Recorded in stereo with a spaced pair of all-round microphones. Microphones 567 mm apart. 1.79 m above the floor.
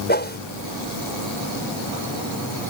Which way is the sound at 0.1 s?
15° left (ahead or behind).